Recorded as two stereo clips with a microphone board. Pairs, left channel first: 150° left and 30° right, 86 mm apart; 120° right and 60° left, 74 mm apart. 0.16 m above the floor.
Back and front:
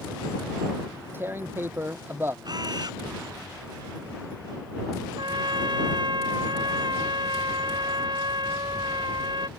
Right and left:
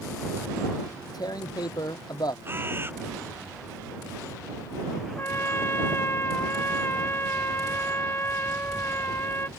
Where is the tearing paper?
95° right.